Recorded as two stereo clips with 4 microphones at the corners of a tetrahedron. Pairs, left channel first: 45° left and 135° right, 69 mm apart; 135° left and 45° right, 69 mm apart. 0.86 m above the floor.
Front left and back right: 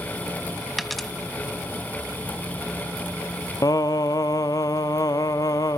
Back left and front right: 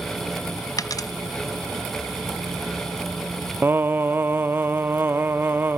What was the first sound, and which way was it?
A dropped coin, 135° left.